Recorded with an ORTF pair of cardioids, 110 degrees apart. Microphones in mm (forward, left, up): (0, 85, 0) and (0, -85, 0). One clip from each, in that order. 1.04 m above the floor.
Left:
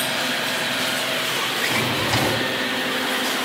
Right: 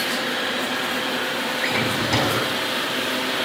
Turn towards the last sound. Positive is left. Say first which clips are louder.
# right 1 dB
turn(degrees=5)